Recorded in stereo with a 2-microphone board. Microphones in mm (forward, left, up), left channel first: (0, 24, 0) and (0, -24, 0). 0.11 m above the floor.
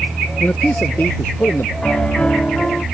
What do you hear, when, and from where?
0.4 s a man speaking: 30° left (ahead or behind); by 1.7 s 50° left (ahead or behind)
1.8 s a piano: 20° left (ahead or behind)